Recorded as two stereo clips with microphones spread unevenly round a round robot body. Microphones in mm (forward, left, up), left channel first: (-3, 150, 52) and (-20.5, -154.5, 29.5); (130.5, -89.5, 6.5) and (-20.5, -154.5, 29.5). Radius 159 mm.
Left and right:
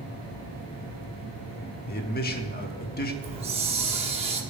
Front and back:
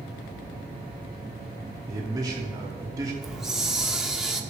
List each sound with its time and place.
1.9 s a man speaking: 135° left, 1.1 m
3.2 s a hiss: 55° right, 1.1 m